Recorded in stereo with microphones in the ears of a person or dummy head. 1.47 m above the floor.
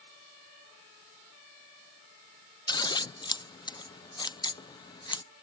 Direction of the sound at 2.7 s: 20° left (ahead or behind).